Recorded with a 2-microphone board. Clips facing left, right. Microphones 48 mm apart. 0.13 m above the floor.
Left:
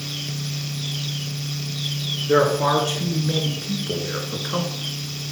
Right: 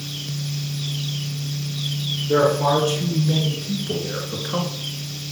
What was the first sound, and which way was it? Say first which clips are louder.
A man speaking: even; 45° left (ahead or behind).